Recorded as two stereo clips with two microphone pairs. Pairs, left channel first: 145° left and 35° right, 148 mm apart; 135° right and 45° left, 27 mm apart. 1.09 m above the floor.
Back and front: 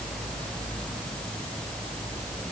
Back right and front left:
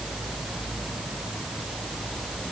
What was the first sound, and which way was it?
Only background noise.